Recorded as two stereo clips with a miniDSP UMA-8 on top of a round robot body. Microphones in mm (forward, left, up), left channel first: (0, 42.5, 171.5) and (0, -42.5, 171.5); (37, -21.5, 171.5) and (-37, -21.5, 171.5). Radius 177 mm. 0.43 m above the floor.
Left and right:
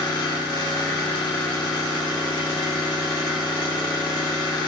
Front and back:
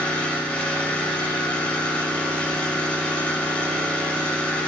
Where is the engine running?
70° left, 3.5 m.